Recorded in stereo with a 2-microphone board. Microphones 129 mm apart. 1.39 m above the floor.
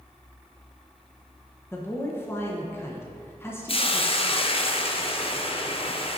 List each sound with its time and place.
1.7 s a man speaking: 20° left (ahead or behind), 1.0 m
3.7 s a hiss: 45° left (ahead or behind), 0.6 m